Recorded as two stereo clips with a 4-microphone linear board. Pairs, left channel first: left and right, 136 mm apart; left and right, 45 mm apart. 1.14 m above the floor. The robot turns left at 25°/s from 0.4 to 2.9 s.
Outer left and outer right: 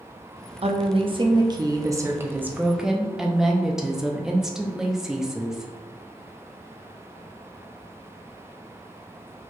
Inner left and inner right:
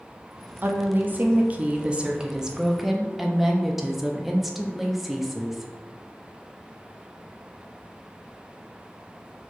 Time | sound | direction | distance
0.6 | a woman speaking | 120° right | 0.5 m